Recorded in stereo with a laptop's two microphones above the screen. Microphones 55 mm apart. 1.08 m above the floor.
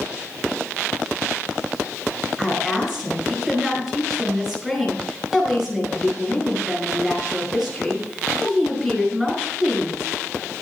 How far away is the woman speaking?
About 4.5 m.